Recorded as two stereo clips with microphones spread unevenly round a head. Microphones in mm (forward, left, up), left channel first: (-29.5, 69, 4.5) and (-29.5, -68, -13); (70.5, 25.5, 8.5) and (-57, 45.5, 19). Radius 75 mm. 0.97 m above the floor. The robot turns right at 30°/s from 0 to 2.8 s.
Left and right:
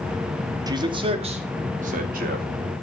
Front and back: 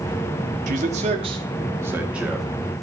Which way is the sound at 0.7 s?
150° right.